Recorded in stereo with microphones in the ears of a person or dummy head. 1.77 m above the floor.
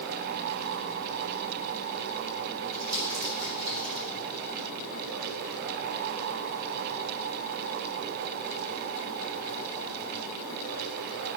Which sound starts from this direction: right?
Crumpling, at 2.7 s.